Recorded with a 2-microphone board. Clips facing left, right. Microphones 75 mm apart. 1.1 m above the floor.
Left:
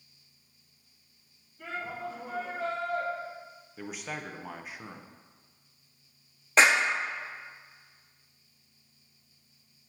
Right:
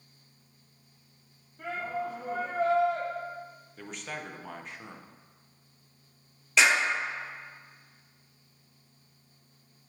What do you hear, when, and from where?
1.6 s a shout: 65° right (ahead or behind), 1.5 m
3.8 s a man speaking: 5° left (ahead or behind), 0.6 m
6.6 s a clap: 40° left (ahead or behind), 1.1 m